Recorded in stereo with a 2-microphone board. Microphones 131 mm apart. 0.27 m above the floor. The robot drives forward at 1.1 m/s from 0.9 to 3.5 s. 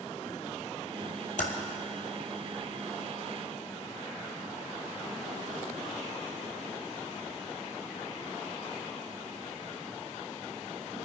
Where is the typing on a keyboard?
80° left, 1.3 m; by 1.5 s 85° left, 1.3 m.